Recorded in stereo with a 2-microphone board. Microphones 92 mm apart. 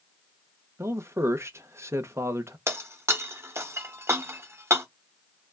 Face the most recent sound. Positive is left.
turn(degrees=-30)  # may be behind; listen again after turning